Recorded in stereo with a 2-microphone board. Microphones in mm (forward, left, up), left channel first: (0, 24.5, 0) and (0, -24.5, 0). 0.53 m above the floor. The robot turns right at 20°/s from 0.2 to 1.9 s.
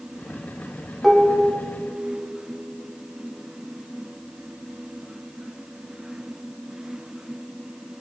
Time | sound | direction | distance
1.0 | dishes clattering | 5° right (ahead or behind) | 0.8 m